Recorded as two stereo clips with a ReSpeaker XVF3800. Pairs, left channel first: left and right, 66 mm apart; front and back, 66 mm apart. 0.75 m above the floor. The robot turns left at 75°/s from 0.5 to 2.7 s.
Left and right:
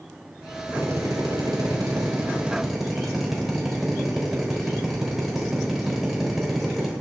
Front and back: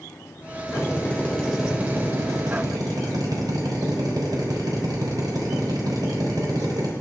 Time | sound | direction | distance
0.7 | a drill | 30° right | 3.5 m